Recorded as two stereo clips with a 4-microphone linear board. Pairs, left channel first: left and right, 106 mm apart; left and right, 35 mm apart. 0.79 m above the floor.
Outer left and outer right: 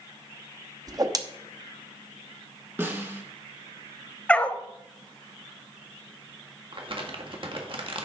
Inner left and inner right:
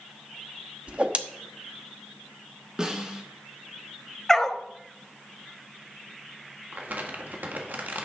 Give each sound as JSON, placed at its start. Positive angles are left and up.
{"t": 0.9, "sound": "a whoosh", "side_deg": -35, "distance_m": 0.9}
{"t": 2.8, "sound": "a snare drum", "side_deg": -20, "distance_m": 1.9}
{"t": 4.3, "sound": "a dog barking", "side_deg": 10, "distance_m": 0.7}
{"t": 6.7, "sound": "crumpling", "side_deg": -50, "distance_m": 1.6}